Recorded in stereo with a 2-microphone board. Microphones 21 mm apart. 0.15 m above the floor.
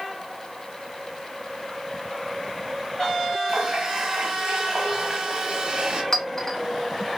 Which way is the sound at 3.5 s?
40° right (ahead or behind).